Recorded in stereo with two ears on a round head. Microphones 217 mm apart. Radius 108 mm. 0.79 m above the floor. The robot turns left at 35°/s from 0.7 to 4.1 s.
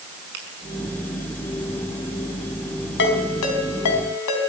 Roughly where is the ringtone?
Left.